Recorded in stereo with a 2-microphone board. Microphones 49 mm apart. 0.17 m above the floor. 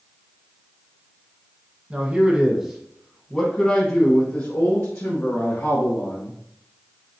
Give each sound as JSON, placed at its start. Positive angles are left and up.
{"t": 1.9, "sound": "a man speaking", "side_deg": -30, "distance_m": 1.3}